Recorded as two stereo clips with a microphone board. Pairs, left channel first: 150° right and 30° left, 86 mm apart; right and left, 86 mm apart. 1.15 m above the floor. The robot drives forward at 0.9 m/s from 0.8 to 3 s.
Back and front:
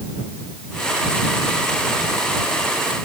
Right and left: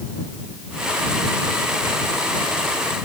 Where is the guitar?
No guitar in this recording.